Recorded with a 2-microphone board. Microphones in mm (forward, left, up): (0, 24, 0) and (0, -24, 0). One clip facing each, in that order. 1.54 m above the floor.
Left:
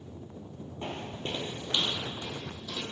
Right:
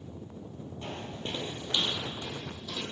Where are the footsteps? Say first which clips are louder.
Left 2 dB; 30° left (ahead or behind), 1.8 m; by 2.8 s 15° left (ahead or behind), 2.5 m.